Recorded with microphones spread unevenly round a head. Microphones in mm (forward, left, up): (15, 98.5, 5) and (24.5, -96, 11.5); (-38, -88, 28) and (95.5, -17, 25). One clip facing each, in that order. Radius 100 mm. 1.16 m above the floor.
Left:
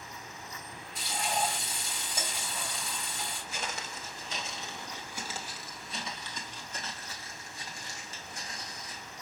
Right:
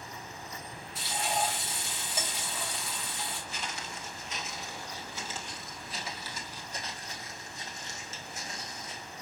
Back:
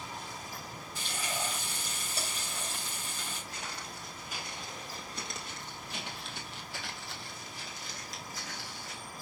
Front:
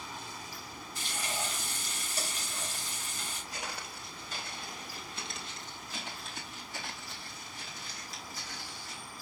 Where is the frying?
175° right, 3 m.